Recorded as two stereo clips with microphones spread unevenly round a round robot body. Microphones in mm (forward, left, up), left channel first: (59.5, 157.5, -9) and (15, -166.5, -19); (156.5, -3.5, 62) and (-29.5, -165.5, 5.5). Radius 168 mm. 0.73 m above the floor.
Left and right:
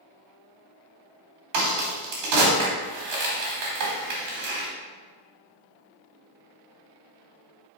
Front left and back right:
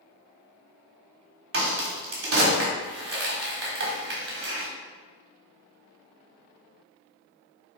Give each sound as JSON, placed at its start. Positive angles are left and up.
{"t": 1.5, "sound": "a crack", "azimuth_deg": -115, "distance_m": 1.8}